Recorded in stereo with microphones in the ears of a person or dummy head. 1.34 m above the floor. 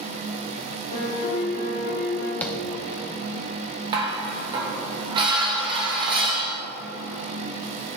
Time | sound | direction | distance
0.9 | a piano | 50° left (ahead or behind) | 1.2 m
2.4 | tapping | 10° left (ahead or behind) | 0.6 m
3.9 | dishes clattering | 25° right (ahead or behind) | 0.7 m